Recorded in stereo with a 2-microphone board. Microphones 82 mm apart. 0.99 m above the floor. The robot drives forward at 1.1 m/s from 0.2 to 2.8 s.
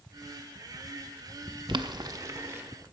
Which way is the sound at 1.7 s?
65° right (ahead or behind).